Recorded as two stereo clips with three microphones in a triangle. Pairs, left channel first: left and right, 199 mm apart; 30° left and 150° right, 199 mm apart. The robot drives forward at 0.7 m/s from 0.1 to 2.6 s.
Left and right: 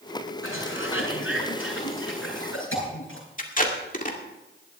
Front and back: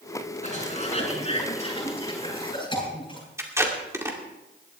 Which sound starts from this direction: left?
A cough, at 0.4 s.